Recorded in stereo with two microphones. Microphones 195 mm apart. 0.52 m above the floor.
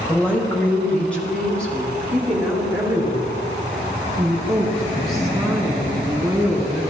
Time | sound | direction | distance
0.1 | a woman speaking | 10° left (ahead or behind) | 1.9 m